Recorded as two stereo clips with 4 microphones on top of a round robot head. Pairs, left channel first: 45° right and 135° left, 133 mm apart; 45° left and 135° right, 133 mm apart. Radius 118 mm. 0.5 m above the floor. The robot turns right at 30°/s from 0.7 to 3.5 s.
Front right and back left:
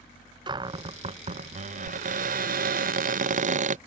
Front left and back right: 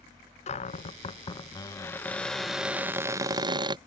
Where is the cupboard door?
80° left; by 3.8 s 165° left.